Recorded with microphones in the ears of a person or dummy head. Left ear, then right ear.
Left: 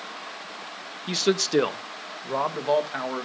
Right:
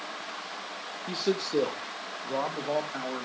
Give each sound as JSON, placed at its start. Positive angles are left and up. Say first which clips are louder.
{"t": 1.1, "sound": "a man speaking", "louder": "left 6 dB", "side_deg": 35, "distance_m": 0.7}